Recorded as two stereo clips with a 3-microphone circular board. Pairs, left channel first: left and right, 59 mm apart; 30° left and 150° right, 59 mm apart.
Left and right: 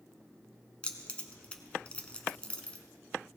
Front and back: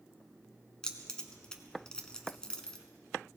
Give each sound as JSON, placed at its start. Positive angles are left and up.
{"t": 0.8, "sound": "keys jangling", "azimuth_deg": 75, "distance_m": 0.9}